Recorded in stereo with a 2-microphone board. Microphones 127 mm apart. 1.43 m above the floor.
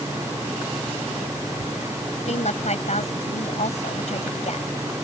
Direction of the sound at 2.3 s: 65° left (ahead or behind).